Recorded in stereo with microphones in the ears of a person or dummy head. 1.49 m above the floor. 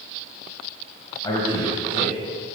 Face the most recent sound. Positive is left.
turn(degrees=25)  # may be behind; listen again after turning